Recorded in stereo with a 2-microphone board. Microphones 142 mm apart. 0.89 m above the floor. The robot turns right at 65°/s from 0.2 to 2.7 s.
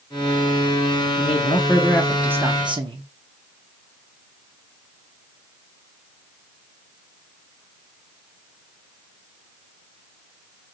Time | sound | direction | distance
1.2 | a man speaking | 120° left | 0.6 m